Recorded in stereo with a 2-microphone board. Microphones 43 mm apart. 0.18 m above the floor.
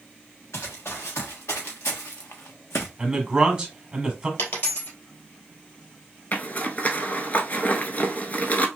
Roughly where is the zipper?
Left.